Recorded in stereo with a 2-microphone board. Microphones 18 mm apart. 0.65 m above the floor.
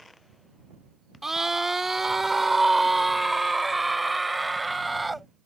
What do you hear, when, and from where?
1.2 s a scream: 25° right (ahead or behind); by 5.3 s centre (ahead or behind)